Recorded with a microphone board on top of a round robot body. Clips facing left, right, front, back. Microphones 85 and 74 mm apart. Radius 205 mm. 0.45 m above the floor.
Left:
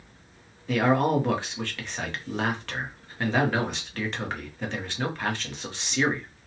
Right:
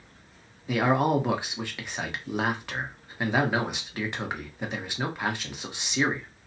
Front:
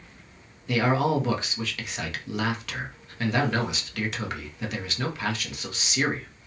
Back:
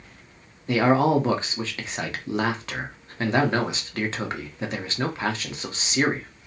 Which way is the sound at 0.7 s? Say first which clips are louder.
Left 1 dB, back 4 dB; 155° right.